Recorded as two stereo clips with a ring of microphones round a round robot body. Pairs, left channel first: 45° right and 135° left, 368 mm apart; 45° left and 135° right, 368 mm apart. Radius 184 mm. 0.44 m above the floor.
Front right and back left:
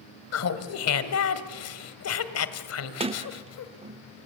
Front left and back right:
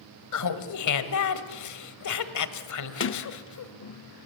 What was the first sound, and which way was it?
Laughter, 5° left.